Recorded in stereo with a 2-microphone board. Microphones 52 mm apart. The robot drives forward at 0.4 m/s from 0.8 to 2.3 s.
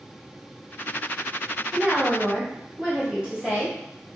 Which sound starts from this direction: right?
A woman speaking, at 1.7 s.